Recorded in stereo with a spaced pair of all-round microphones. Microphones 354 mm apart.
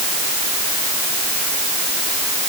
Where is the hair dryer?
No hair dryer in this recording.